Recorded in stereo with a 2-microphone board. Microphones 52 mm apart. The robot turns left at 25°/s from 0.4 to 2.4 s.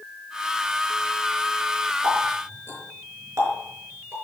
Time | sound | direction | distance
2.0 | a running tap | 75° right (ahead or behind) | 5.5 m